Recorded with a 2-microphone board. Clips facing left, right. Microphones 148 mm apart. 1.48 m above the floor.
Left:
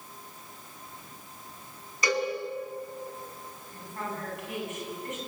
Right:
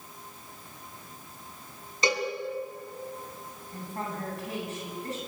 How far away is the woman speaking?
About 10 m.